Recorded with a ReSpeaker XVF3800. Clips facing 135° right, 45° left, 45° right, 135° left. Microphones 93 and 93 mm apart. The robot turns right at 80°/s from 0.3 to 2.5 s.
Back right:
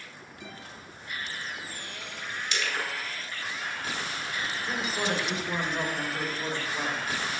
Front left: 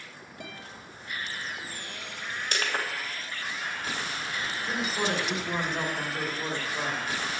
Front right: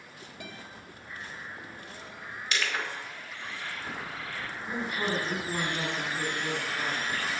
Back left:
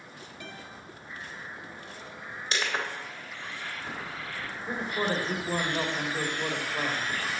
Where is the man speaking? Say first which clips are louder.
Front left 1 dB, back left 2 dB; 135° left, 4 m.